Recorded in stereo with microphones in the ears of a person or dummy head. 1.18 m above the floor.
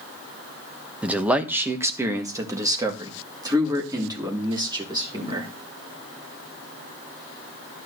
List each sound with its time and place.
1.0 s a man speaking: 10° right (ahead or behind), 1.0 m; by 5.5 s 25° right (ahead or behind), 3.5 m